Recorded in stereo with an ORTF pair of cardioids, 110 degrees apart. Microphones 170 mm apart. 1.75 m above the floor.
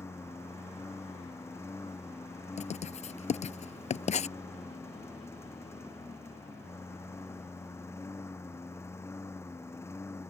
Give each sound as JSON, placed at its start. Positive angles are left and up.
{"t": 0.0, "sound": "a lawn mower", "azimuth_deg": 15}
{"t": 2.6, "sound": "writing", "azimuth_deg": 40}